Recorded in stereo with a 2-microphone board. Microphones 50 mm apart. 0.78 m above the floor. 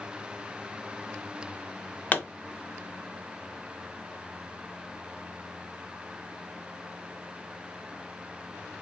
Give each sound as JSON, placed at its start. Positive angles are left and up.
{"t": 2.1, "sound": "a pop", "side_deg": 35, "distance_m": 0.6}